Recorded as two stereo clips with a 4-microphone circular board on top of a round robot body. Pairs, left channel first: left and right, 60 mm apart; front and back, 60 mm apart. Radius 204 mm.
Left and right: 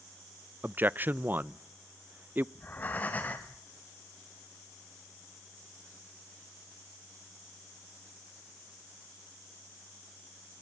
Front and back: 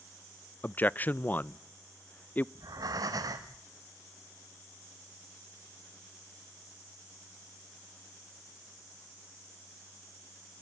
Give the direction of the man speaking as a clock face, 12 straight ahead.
2 o'clock.